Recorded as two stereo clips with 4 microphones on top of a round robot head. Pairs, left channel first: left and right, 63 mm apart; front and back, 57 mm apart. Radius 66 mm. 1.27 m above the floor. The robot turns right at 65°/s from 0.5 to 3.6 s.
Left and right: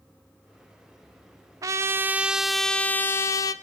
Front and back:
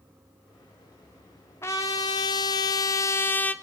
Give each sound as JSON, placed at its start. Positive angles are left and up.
{"t": 1.6, "sound": "a trumpet", "azimuth_deg": -60, "distance_m": 0.5}